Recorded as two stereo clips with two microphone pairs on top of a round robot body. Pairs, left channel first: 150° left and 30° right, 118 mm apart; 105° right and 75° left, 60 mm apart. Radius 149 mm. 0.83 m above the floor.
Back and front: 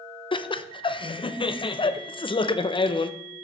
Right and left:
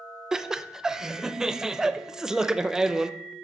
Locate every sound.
0.3 s laughter: 150° left, 0.8 m